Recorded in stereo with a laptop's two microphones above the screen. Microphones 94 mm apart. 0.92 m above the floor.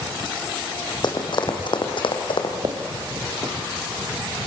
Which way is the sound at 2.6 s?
45° right (ahead or behind).